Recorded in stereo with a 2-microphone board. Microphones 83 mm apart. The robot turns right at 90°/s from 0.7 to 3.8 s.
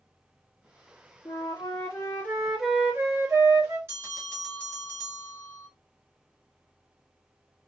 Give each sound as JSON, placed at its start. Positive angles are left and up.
{"t": 1.2, "sound": "a flute", "azimuth_deg": 65, "distance_m": 1.3}
{"t": 3.9, "sound": "a bell", "side_deg": -30, "distance_m": 1.7}